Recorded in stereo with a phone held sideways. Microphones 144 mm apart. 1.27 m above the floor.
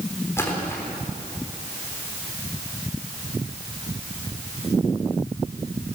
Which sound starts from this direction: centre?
A splash, at 0.4 s.